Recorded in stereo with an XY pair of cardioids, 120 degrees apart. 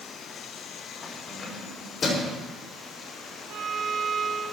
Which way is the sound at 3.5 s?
65° right.